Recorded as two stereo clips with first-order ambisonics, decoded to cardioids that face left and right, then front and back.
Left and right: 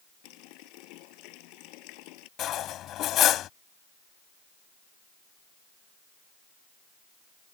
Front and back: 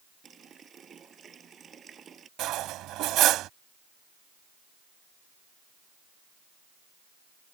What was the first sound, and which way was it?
A running tap, 110° left.